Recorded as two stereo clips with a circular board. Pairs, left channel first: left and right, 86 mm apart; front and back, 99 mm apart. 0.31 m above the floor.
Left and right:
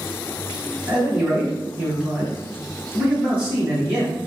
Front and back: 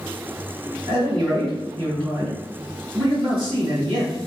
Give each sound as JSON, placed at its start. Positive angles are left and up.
{"t": 0.9, "sound": "a man speaking", "azimuth_deg": -160, "distance_m": 1.9}